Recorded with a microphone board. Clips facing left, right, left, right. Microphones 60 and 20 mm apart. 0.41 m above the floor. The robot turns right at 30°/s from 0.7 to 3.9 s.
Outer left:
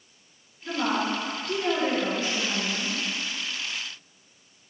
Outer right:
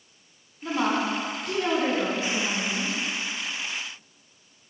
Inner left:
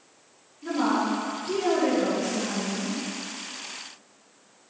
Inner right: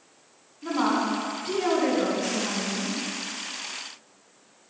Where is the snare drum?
No snare drum in this recording.